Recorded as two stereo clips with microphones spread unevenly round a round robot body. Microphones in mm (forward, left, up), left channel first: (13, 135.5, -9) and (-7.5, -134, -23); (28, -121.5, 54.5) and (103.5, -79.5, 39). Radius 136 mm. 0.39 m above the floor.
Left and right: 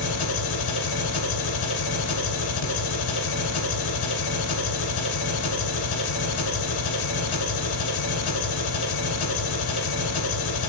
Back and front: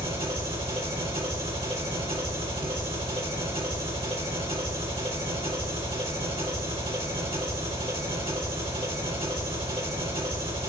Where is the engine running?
80° left, 1.8 m.